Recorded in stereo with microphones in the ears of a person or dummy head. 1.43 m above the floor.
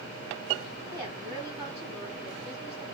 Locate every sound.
0.9 s a woman speaking: 15° right (ahead or behind), 3.5 m